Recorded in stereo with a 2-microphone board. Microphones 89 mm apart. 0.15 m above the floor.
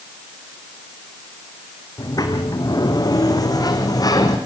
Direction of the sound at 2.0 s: 45° left (ahead or behind).